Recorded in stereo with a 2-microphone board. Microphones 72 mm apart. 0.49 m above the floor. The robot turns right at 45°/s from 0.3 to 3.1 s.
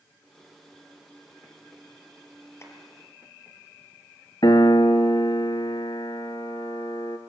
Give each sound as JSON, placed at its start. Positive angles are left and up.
{"t": 2.6, "sound": "tapping", "side_deg": 40, "distance_m": 3.5}
{"t": 4.4, "sound": "a piano", "side_deg": 70, "distance_m": 1.4}